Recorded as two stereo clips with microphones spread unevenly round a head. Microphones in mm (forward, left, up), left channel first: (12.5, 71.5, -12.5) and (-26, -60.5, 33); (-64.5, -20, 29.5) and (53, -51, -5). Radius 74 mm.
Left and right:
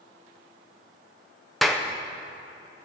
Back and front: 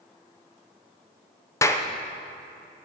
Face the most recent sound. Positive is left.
turn(degrees=-175)